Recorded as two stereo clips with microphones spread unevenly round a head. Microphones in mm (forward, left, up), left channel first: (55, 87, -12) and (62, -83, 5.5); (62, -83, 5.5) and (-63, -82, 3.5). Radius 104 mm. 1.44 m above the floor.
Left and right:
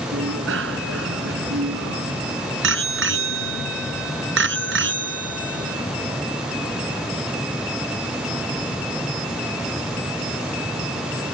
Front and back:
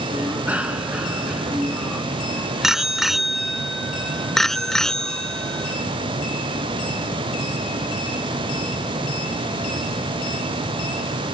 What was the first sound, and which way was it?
A bicycle bell, 105° right.